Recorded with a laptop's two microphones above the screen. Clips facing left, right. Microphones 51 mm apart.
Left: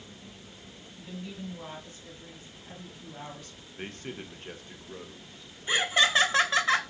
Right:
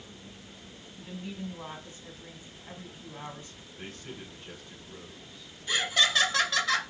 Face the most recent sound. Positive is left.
turn(degrees=25)  # may be behind; listen again after turning